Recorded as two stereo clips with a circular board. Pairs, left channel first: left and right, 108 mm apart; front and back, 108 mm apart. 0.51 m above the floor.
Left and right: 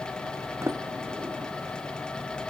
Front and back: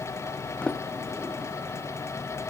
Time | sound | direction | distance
0.6 | a sliding door | 70° right | 1.0 m